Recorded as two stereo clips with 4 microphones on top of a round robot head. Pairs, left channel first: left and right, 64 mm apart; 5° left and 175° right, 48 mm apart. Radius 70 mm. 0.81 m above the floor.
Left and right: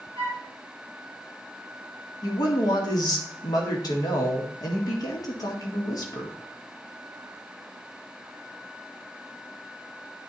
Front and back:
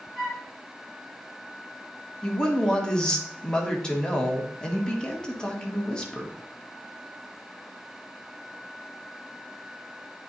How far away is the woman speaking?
About 1.8 m.